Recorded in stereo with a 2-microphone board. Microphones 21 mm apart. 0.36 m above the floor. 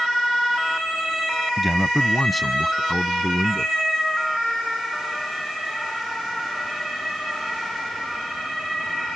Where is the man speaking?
5° left (ahead or behind); by 3.7 s centre (ahead or behind).